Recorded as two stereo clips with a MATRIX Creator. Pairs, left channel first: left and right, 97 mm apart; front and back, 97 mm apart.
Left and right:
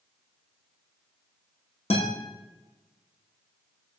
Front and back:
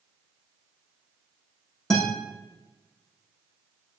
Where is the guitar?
85° left, 5 m.